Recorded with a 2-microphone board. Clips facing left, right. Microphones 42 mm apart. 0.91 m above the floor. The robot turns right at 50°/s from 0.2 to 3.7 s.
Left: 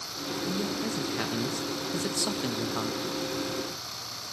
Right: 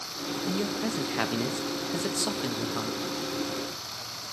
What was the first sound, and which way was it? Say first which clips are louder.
A man speaking: right 2 dB; 110° right.